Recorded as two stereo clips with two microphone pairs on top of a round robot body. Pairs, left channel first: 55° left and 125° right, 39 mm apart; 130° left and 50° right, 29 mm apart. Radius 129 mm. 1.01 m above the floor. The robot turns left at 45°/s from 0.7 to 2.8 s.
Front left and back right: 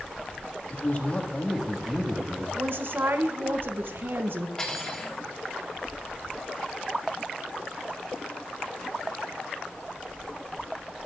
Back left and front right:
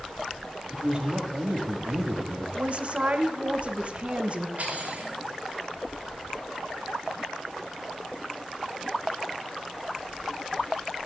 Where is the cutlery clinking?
15° right, 3.5 m.